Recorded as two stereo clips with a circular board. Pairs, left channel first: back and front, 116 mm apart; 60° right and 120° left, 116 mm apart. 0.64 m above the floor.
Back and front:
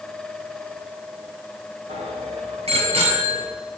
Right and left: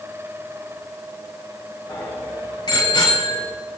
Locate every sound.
1.9 s a bicycle bell: 5° right, 4 m; by 3.5 s 20° right, 3.5 m